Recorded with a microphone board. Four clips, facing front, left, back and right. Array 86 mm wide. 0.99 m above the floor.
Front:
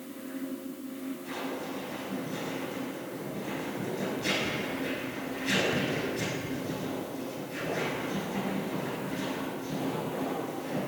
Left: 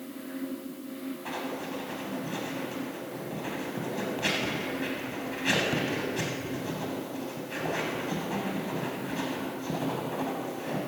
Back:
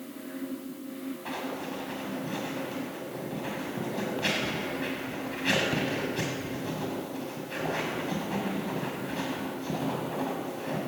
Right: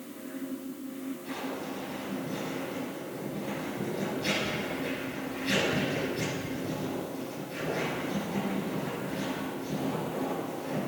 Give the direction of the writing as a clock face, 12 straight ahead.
8 o'clock.